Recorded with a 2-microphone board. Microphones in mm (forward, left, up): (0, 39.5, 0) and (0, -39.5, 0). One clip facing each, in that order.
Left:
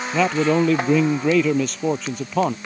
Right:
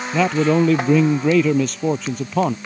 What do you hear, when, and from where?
0.1 s a man speaking: centre (ahead or behind)